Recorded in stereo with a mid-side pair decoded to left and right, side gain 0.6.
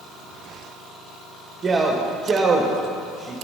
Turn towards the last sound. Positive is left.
turn(degrees=-25)